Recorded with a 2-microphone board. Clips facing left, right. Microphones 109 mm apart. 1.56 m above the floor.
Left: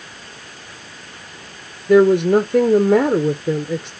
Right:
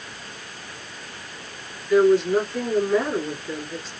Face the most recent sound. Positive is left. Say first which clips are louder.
# left 5 dB
turn(degrees=60)  # may be behind; listen again after turning